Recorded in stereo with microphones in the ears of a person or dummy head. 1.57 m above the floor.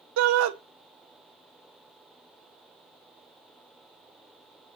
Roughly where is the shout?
Right.